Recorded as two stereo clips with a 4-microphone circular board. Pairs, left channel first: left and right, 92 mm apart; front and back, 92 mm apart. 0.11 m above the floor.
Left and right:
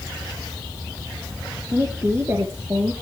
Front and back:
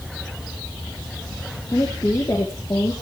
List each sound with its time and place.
1.7 s a woman speaking: 40° right, 3 m